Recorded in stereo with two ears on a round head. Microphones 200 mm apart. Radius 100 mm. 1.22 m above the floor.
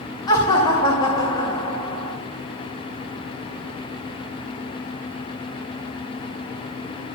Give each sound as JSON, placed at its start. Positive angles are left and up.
{"t": 0.3, "sound": "laughter", "side_deg": 20, "distance_m": 2.5}